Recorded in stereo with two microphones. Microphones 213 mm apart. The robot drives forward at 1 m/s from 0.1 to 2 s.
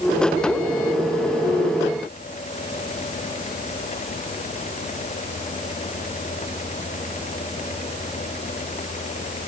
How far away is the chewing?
I don't hear chewing.